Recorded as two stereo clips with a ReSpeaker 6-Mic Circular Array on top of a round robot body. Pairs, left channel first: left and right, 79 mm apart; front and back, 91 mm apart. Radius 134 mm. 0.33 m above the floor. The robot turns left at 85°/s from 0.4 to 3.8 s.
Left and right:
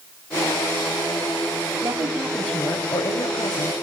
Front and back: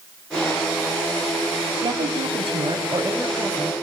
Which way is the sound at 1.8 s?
145° right.